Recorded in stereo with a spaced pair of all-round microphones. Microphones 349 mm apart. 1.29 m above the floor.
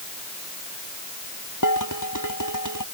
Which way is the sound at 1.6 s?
65° left (ahead or behind).